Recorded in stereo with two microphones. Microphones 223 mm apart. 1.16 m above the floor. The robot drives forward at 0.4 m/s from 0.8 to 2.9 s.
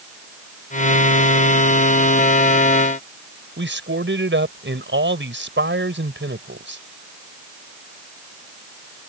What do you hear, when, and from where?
3.6 s a man speaking: 60° right (ahead or behind)